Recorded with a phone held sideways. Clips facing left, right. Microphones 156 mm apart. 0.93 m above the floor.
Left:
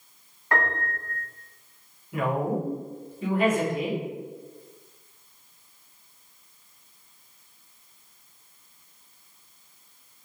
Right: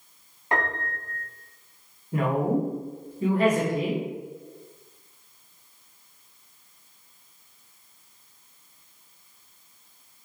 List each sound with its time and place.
0.5 s a piano: 20° right (ahead or behind), 0.5 m
2.1 s a woman speaking: 35° right (ahead or behind), 0.9 m